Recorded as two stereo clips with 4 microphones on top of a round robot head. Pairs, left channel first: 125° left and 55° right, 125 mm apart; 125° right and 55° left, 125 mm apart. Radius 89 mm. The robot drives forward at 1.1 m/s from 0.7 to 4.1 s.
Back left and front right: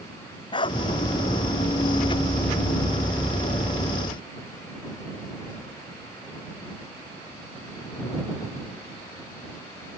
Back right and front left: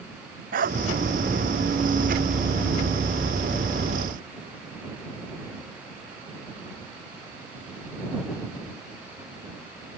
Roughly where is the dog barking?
Left.